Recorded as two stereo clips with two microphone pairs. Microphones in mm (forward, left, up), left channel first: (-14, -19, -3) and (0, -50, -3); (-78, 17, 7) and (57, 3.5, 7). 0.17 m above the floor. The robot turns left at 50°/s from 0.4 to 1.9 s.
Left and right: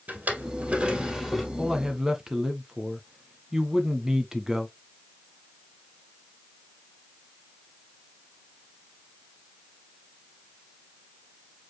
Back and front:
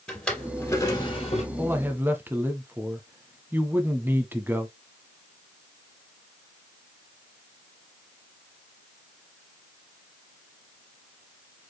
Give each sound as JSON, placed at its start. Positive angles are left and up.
{"t": 0.1, "sound": "a drawer", "azimuth_deg": -100, "distance_m": 2.5}
{"t": 1.6, "sound": "a man speaking", "azimuth_deg": -25, "distance_m": 1.1}